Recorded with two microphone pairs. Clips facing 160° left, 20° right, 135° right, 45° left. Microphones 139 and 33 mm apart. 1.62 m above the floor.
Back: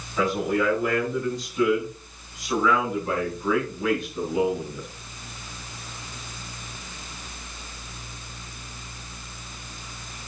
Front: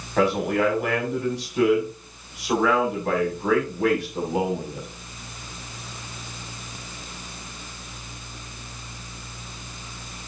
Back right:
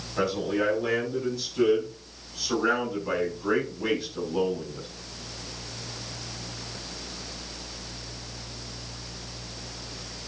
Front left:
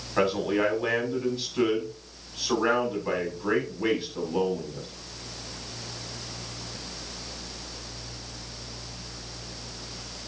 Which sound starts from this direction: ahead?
A man speaking, at 0.2 s.